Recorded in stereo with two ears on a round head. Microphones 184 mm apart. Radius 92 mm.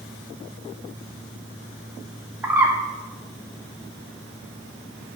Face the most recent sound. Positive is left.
turn(degrees=-10)  # may be behind; listen again after turning